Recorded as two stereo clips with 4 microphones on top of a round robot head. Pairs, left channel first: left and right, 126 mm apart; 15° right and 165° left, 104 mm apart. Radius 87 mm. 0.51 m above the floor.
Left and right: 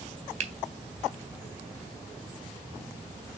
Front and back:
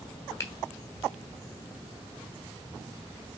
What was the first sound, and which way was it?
A finger snap, 75° right.